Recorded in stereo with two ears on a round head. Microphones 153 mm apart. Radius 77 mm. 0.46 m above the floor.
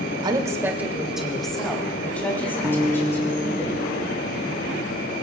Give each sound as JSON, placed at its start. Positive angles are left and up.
{"t": 0.2, "sound": "a woman speaking", "side_deg": -25, "distance_m": 1.4}
{"t": 2.6, "sound": "a guitar", "side_deg": -10, "distance_m": 1.7}